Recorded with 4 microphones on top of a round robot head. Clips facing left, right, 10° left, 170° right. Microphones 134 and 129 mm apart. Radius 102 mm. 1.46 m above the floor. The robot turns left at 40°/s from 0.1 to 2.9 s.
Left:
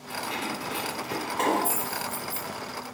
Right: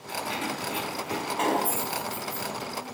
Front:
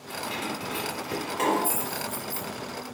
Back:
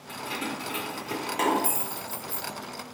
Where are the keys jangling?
120° right, 0.9 m; by 2.5 s 150° left, 0.9 m.